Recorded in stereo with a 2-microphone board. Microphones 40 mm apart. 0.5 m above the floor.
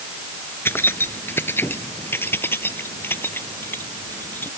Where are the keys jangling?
70° left (ahead or behind); by 4.5 s 65° left (ahead or behind).